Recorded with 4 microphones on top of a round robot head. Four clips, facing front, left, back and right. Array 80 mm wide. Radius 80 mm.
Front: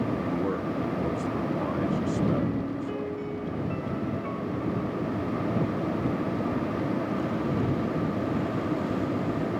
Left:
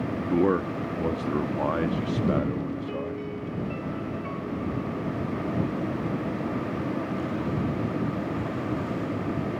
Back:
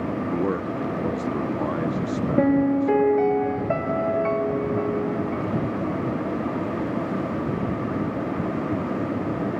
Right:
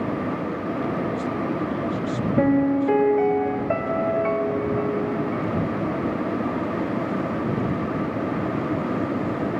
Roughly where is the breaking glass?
I don't hear breaking glass.